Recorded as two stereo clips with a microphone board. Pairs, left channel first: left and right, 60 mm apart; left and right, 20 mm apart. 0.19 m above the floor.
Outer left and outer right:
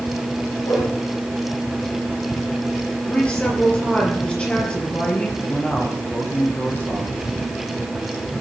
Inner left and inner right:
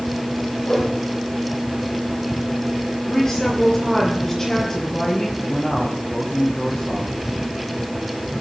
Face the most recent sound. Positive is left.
turn(degrees=25)  # may be behind; listen again after turning